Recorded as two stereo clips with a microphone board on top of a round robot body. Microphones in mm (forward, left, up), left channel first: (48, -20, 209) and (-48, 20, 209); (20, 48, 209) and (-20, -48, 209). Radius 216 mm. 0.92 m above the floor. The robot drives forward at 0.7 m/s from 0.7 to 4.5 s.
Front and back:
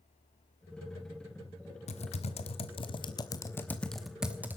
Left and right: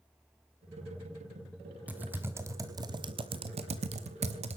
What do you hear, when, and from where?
1.9 s typing on a keyboard: 35° right, 1.5 m; by 4.6 s 130° right, 1.1 m